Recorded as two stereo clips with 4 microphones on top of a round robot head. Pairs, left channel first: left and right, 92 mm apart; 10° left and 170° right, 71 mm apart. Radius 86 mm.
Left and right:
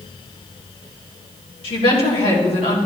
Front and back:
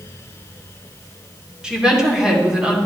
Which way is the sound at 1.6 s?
110° left.